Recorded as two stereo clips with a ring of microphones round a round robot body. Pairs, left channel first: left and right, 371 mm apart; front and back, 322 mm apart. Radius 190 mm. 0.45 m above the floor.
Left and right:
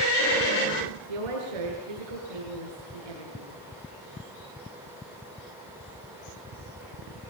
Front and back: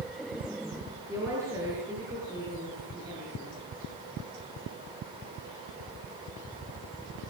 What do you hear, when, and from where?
1.1 s a woman speaking: 95° right, 6.5 m